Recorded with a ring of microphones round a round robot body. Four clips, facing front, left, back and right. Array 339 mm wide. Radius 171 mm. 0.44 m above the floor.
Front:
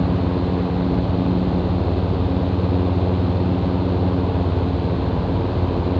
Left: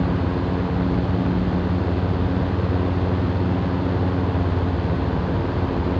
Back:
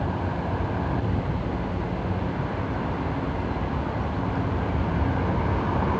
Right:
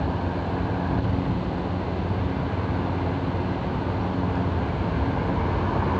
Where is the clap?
No clap in this recording.